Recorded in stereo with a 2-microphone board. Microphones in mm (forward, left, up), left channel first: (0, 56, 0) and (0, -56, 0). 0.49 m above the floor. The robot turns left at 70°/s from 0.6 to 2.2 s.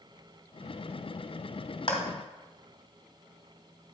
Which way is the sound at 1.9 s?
50° left (ahead or behind).